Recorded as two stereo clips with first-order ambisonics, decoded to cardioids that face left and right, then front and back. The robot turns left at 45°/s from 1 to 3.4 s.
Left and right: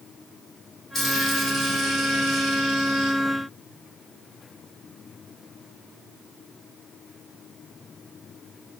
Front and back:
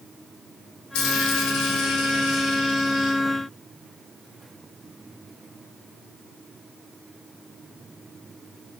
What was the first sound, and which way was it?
A dropped coin, 15° left.